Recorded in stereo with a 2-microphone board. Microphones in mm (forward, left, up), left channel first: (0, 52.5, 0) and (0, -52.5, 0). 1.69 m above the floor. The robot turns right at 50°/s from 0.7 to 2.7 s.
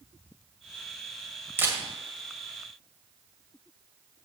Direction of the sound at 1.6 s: 20° right (ahead or behind).